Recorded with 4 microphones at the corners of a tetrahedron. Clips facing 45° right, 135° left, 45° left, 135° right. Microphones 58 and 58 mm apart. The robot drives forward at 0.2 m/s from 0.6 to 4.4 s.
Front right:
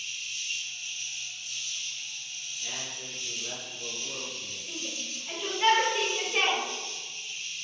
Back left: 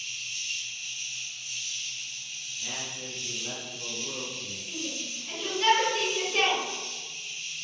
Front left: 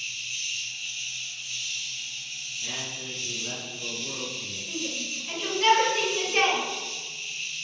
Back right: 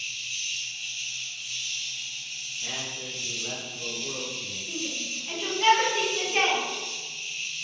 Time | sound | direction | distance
0.0 | an insect | 130° left | 1.5 m
2.6 | a man speaking | 175° right | 1.9 m
4.7 | a shout | 70° right | 1.0 m